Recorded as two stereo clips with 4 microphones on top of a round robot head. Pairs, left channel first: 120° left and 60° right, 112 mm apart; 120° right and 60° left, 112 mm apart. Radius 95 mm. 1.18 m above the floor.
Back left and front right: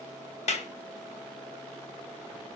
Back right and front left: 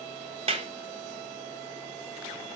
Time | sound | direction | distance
0.5 | a clap | 95° left | 1.3 m